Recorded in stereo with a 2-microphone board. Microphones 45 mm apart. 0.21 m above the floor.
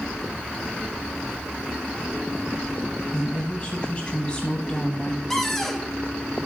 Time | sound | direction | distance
3.1 | a woman speaking | 30° left (ahead or behind) | 1.4 m
5.3 | a cupboard door | 5° left (ahead or behind) | 1.1 m